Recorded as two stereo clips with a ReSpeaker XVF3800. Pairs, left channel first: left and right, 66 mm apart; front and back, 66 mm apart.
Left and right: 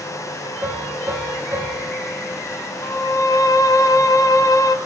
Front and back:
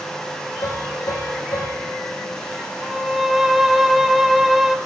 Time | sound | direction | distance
0.6 | a piano | 30° right | 10 m
2.8 | a violin | 95° left | 2.5 m